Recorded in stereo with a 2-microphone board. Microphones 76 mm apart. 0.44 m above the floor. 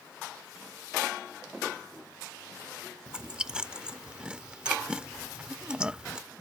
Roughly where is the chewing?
Centre.